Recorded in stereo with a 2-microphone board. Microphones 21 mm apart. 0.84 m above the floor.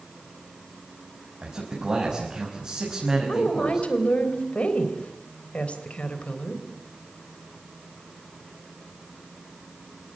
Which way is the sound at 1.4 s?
45° right (ahead or behind).